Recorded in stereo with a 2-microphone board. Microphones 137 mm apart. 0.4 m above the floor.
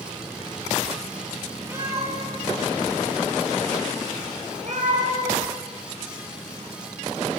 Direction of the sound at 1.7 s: 15° right (ahead or behind).